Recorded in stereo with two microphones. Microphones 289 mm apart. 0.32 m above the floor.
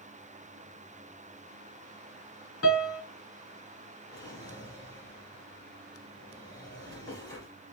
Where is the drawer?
15° left (ahead or behind), 2.5 m.